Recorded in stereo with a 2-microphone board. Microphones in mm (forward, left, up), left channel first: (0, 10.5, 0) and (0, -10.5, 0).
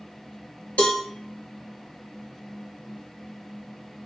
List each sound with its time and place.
0.8 s a cowbell: 80° left, 1.6 m